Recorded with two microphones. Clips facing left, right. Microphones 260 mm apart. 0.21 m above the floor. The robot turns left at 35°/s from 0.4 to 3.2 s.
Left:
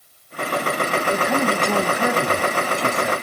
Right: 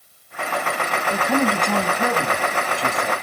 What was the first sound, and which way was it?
A man speaking, centre (ahead or behind).